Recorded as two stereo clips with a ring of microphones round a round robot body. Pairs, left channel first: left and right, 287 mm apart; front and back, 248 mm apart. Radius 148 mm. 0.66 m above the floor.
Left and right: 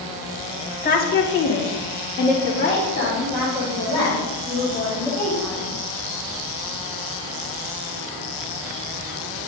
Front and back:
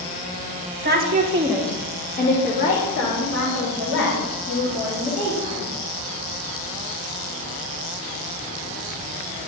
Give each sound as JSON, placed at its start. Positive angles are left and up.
{"t": 0.8, "sound": "a woman speaking", "azimuth_deg": 145, "distance_m": 1.2}